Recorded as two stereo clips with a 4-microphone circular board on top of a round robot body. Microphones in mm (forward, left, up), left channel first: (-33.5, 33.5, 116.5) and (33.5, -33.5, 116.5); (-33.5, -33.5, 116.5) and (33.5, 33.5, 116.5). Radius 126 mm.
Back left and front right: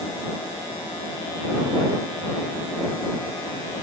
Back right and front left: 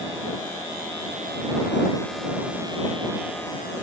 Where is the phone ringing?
I don't hear a phone ringing.